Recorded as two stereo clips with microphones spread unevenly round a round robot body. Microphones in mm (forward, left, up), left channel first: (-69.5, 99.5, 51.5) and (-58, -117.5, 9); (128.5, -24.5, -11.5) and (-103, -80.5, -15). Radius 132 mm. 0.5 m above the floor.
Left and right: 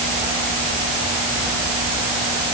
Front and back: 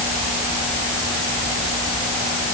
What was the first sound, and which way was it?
Only background noise.